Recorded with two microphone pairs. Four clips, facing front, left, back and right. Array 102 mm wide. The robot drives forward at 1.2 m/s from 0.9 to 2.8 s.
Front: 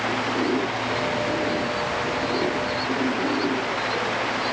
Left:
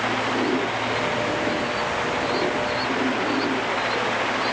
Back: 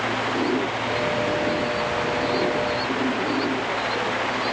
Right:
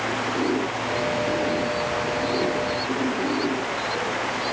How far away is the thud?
I don't hear a thud.